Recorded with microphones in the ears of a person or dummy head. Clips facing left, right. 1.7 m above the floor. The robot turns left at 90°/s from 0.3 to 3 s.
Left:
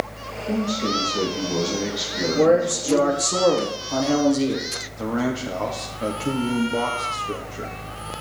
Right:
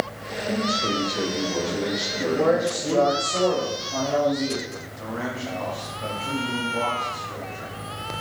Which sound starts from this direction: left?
A man speaking, at 5.0 s.